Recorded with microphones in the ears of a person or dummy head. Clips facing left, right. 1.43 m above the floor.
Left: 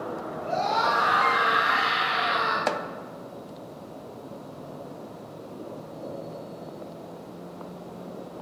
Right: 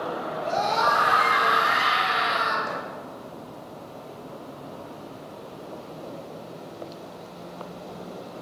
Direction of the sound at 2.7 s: 80° left.